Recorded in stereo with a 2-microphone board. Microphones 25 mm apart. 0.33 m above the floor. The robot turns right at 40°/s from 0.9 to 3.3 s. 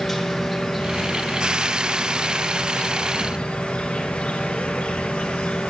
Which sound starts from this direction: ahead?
An insect, at 0.0 s.